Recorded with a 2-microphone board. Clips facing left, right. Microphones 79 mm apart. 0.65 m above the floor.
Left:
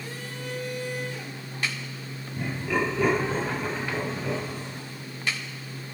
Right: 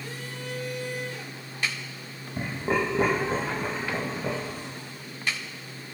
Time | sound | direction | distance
2.4 | laughter | 45° right (ahead or behind) | 3 m